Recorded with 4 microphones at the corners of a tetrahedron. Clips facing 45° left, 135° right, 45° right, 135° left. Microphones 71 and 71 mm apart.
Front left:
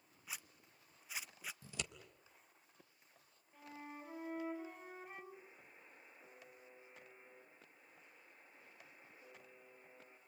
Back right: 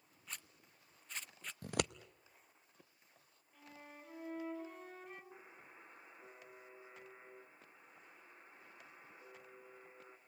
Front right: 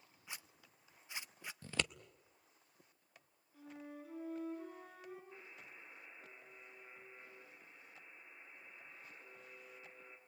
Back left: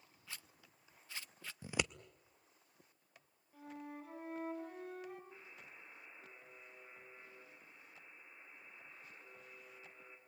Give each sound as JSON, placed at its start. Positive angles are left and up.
{"t": 0.3, "sound": "a zipper", "azimuth_deg": -25, "distance_m": 0.6}
{"t": 1.6, "sound": "scissors", "azimuth_deg": -150, "distance_m": 0.6}
{"t": 3.5, "sound": "a flute", "azimuth_deg": 120, "distance_m": 7.0}
{"t": 5.3, "sound": "a buzzer", "azimuth_deg": -150, "distance_m": 6.5}